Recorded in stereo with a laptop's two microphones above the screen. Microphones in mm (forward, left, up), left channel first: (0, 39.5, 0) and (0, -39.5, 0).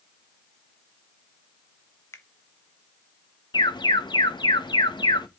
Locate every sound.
2.1 s a finger snap: 35° left (ahead or behind), 1.0 m
3.5 s an alarm: 70° left (ahead or behind), 1.0 m